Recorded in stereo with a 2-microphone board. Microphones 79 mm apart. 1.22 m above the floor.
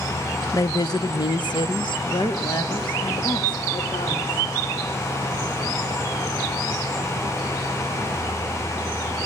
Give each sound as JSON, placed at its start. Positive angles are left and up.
{"t": 0.5, "sound": "a woman speaking", "side_deg": 45, "distance_m": 0.6}